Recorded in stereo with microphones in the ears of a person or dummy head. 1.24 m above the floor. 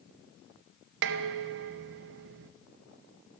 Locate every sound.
1.0 s dishes clattering: 55° right (ahead or behind), 0.6 m